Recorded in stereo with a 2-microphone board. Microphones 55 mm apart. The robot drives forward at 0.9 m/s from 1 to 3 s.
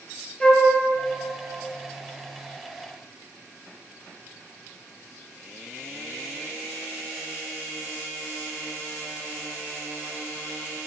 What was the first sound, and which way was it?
A flute, 15° left (ahead or behind).